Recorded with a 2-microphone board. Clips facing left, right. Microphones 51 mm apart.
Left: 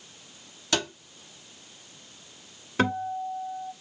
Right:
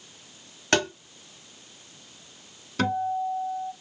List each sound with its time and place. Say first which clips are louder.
0.7 s tapping: right 5 dB; 55° right (ahead or behind), 1.2 m
2.8 s a guitar: right 1 dB; 25° left (ahead or behind), 0.6 m